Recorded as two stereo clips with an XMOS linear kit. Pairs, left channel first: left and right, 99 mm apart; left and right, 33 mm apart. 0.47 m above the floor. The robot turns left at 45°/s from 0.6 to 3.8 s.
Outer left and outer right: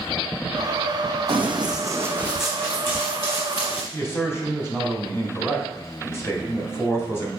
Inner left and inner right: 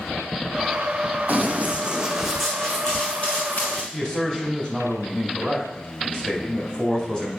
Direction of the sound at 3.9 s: 25° left (ahead or behind).